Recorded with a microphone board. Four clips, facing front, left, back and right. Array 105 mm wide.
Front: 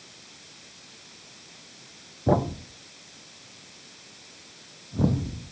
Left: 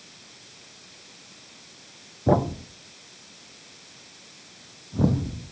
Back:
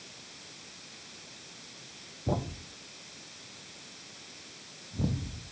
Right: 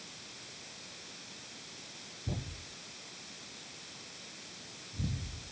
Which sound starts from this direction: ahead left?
A thud, at 2.3 s.